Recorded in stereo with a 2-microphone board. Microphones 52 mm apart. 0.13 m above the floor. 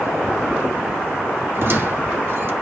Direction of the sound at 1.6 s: 50° right (ahead or behind).